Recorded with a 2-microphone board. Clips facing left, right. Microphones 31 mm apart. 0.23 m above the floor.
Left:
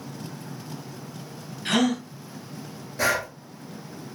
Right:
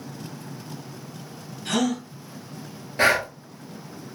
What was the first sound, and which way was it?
A gasp, 50° left (ahead or behind).